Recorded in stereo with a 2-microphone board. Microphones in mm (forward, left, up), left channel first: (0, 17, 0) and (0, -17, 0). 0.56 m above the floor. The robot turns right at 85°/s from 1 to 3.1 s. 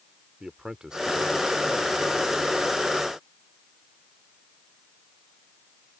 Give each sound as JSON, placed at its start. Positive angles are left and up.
{"t": 0.4, "sound": "a man speaking", "azimuth_deg": -155}